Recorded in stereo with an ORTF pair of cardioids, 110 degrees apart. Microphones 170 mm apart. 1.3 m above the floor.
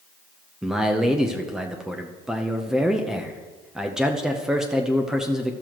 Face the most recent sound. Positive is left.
turn(degrees=-5)